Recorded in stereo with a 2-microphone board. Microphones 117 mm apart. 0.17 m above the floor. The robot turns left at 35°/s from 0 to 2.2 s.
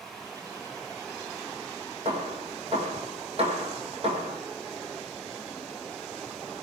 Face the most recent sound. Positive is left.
turn(degrees=-55)  # may be behind; listen again after turning